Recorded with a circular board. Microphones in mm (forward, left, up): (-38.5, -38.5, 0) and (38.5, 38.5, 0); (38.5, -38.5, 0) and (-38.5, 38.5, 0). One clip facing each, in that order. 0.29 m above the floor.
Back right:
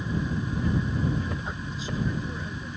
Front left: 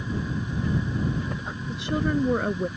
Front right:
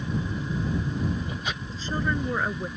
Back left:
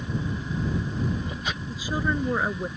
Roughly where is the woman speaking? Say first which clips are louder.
Front left 7 dB, back left 1 dB; ahead left.